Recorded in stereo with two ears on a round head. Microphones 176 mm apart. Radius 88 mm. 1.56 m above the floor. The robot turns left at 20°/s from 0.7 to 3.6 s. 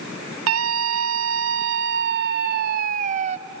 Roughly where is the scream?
Right.